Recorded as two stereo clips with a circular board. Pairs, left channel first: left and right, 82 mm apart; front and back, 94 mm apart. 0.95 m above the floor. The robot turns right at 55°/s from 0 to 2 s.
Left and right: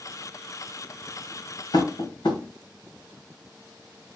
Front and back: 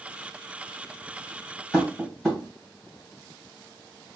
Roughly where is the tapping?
Left.